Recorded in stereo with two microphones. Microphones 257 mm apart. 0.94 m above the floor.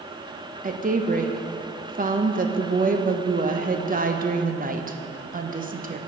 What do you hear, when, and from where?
0.6 s a woman speaking: 35° right (ahead or behind), 0.5 m